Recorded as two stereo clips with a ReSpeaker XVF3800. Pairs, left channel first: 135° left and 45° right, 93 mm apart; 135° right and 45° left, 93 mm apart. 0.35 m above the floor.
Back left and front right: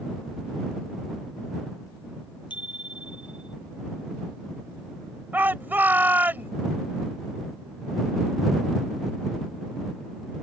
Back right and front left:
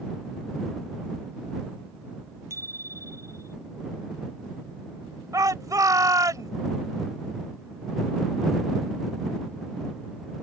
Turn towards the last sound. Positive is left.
turn(degrees=15)